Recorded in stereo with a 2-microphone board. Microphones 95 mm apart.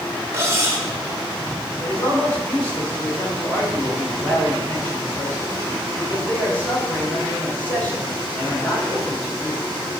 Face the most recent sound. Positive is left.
turn(degrees=15)  # may be behind; listen again after turning